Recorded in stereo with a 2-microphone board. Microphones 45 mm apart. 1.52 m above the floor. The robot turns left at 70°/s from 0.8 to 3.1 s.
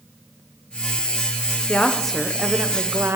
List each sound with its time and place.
1.7 s a woman speaking: 30° left, 0.6 m; by 3.2 s 65° right, 0.6 m